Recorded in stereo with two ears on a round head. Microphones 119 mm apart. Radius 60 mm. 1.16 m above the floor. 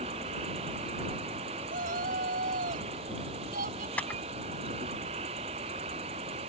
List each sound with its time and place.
0.0 s an insect: 45° right (ahead or behind)
1.7 s a shout: 65° right (ahead or behind)
4.0 s a camera shutter: 10° left (ahead or behind)